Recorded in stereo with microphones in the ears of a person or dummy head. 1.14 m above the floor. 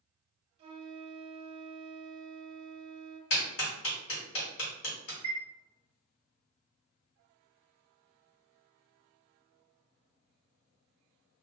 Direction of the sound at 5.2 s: 20° left (ahead or behind).